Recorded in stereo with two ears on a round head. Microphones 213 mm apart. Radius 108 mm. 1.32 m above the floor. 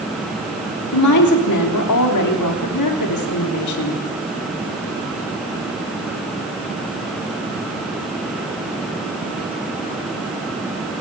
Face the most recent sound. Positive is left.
turn(degrees=80)